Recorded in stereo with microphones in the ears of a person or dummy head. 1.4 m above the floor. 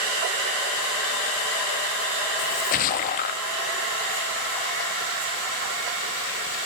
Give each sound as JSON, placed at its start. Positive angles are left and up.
{"t": 2.4, "sound": "a splash", "side_deg": 40, "distance_m": 0.9}